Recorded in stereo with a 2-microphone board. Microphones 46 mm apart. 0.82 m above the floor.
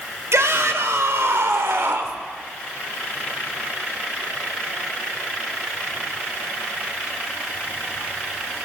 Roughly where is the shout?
Right.